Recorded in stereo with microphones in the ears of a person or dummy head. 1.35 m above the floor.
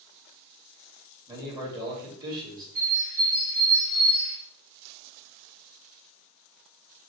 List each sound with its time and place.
1.3 s a man speaking: 20° right (ahead or behind), 2 m
2.8 s a bird: 5° right (ahead or behind), 1.9 m